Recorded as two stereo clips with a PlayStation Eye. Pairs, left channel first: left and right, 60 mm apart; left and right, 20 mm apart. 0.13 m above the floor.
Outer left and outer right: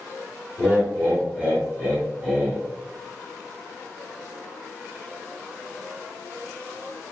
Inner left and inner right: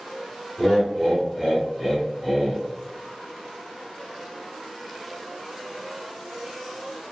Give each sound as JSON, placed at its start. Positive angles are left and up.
{"t": 0.6, "sound": "laughter", "side_deg": -20, "distance_m": 1.7}